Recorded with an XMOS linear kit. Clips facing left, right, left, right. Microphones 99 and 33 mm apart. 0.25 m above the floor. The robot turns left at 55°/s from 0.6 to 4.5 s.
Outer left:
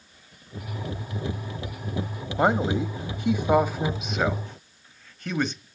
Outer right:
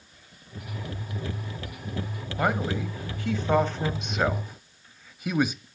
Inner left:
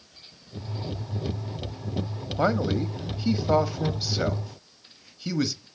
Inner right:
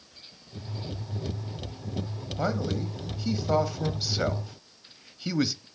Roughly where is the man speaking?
Left.